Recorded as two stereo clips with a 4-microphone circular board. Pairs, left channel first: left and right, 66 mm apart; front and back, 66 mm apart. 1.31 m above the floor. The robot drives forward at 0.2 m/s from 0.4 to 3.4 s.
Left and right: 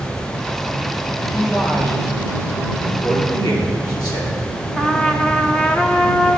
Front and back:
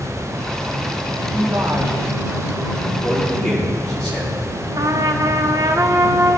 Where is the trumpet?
165° left, 0.6 m.